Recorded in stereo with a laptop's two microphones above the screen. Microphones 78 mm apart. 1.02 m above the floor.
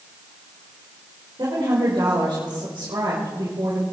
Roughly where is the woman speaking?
Right.